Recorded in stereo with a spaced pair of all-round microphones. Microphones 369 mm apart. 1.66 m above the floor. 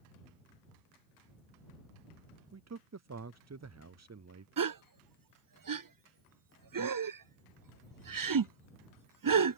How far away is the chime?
I don't hear a chime.